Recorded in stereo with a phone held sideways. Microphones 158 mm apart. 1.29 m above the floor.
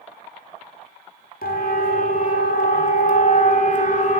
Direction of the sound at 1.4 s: 70° left (ahead or behind).